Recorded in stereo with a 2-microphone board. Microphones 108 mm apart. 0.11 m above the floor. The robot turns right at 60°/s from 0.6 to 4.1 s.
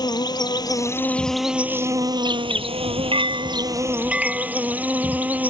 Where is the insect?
135° left; by 5.5 s 15° right.